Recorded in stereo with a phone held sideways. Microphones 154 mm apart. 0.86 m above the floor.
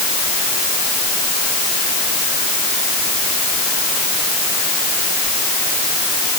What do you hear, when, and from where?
Only background noise.